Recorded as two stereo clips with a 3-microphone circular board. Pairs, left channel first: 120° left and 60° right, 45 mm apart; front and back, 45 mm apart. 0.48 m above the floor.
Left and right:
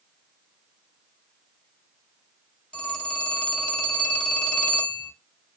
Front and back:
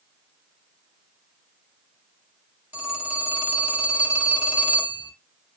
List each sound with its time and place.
2.7 s a phone ringing: straight behind, 0.9 m